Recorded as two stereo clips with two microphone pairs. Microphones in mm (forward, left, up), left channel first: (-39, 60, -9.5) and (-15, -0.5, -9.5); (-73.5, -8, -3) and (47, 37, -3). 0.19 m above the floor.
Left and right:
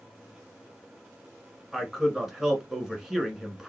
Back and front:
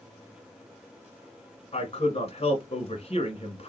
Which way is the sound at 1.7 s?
155° right.